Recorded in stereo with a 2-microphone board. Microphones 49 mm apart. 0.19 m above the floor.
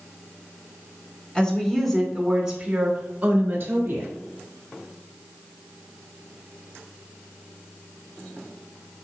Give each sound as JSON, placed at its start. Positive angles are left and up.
{"t": 1.4, "sound": "a woman speaking", "side_deg": 15, "distance_m": 2.5}